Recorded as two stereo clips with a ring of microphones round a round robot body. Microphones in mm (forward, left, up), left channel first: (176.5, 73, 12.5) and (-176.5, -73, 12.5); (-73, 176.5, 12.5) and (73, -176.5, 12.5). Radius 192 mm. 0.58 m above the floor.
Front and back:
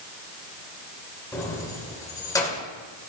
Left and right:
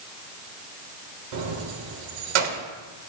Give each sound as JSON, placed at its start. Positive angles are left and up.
{"t": 1.3, "sound": "keys jangling", "azimuth_deg": -60, "distance_m": 1.4}